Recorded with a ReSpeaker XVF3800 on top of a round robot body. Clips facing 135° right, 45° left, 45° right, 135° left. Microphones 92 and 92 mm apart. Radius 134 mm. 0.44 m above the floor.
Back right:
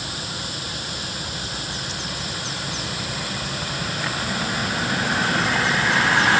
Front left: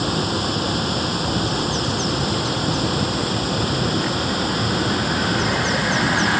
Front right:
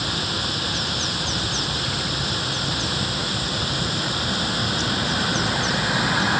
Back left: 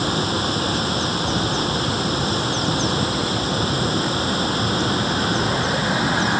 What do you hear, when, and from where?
0.0 s running water: 80° left